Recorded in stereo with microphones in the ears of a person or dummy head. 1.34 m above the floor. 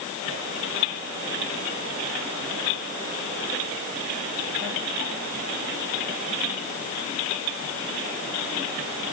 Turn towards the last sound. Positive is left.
No sound to turn to.